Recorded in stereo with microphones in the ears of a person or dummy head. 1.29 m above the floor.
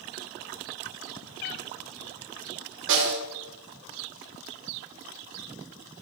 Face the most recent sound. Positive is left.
turn(degrees=-65)  # may be behind; listen again after turning